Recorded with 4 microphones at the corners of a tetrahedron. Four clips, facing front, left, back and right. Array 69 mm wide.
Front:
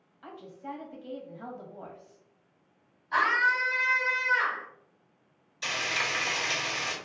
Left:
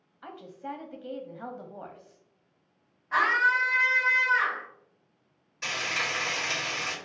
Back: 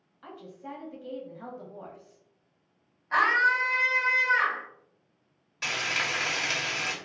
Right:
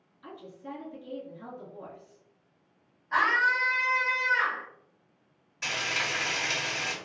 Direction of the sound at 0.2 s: 95° left.